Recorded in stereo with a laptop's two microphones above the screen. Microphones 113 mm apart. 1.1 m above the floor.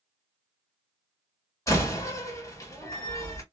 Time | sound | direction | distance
1.7 | a door slam | 30° left (ahead or behind) | 2 m